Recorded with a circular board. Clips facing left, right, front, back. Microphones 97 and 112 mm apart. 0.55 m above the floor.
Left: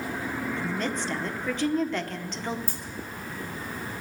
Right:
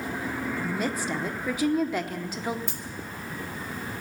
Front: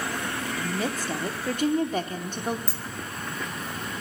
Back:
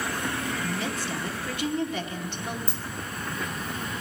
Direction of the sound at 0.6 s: 10° right.